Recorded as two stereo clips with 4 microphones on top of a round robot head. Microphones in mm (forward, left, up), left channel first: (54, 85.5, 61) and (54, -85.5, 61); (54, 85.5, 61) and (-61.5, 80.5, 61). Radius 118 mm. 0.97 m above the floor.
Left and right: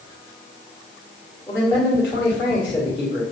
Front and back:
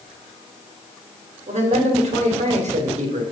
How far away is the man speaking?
About 2 m.